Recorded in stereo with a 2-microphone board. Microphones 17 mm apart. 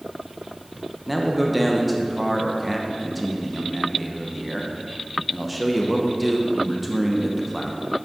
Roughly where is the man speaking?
Centre.